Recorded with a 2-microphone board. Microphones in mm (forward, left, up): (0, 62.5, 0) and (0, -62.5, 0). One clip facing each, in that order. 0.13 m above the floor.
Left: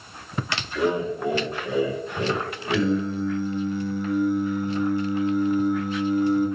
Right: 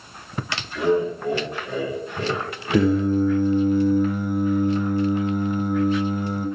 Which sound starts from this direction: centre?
Laughter, at 0.8 s.